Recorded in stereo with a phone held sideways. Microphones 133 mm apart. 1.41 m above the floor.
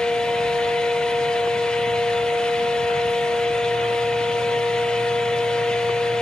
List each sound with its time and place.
0.0 s a fan: 5° left (ahead or behind), 1.2 m